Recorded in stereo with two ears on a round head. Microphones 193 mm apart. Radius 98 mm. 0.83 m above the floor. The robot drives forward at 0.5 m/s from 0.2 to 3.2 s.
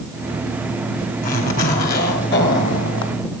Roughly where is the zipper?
Left.